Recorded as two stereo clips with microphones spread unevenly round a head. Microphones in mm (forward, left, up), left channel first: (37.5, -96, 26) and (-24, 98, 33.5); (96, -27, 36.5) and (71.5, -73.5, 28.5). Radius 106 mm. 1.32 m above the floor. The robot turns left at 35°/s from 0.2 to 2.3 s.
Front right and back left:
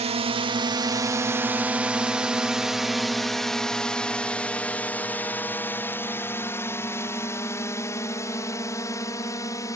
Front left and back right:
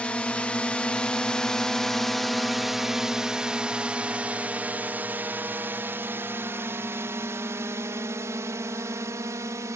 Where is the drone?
120° left; by 9.8 s 145° right.